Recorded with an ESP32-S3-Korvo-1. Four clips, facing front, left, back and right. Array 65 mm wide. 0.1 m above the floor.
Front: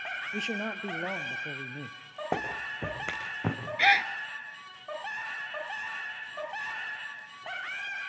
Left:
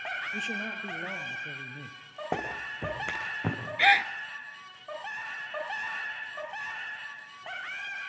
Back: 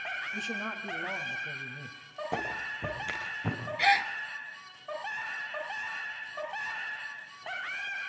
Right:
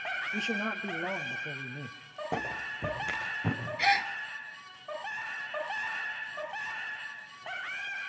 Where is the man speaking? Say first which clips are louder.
Right 2 dB, front 2 dB; 20° right, 2 m.